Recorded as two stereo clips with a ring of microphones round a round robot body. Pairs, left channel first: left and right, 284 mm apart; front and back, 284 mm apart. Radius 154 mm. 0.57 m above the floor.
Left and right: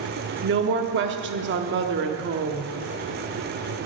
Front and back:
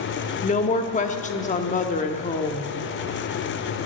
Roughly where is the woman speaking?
Ahead right.